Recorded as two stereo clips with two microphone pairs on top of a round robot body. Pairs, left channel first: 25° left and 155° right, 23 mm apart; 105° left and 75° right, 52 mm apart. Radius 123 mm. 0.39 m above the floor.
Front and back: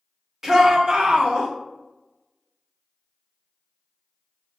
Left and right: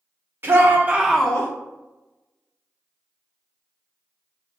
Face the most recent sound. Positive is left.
turn(degrees=160)